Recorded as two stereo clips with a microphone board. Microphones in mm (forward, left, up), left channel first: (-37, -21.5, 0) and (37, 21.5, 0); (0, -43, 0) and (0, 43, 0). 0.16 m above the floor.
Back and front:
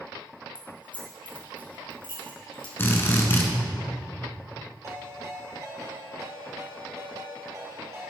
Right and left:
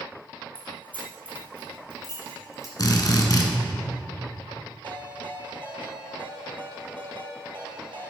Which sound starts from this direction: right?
A drill, at 2.8 s.